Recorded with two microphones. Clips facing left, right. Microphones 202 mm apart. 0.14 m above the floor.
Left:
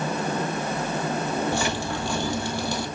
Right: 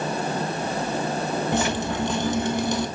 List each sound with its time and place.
1.5 s dripping: 20° right (ahead or behind), 1.4 m